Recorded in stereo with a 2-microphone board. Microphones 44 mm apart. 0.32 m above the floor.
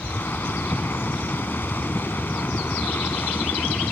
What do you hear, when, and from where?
0.0 s a helicopter: 50° left (ahead or behind)